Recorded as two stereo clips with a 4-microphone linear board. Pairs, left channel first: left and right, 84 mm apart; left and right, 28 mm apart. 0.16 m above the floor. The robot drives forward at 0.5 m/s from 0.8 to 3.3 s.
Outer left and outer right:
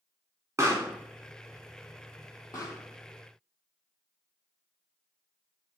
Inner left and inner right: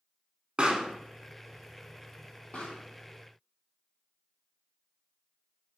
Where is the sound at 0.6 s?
35° right (ahead or behind), 0.5 m.